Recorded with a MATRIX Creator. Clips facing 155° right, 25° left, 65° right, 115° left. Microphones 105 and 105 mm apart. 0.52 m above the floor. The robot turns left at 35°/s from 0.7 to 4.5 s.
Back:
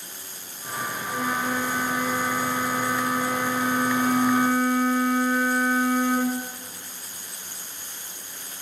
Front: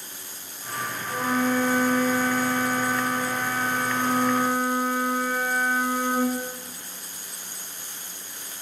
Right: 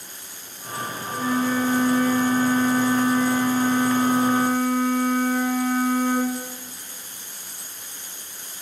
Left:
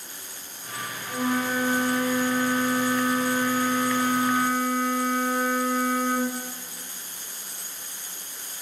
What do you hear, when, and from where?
1.1 s a flute: 100° left, 3 m; by 6.3 s 20° right, 3 m